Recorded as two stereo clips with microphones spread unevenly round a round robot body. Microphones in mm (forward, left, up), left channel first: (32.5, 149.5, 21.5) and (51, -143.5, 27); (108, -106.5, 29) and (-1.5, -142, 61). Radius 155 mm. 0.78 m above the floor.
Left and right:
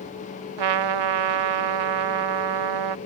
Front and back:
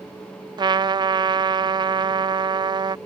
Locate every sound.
0.6 s a trumpet: 105° right